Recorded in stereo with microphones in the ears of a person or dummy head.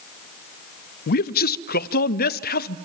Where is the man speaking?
55° left (ahead or behind), 0.7 m.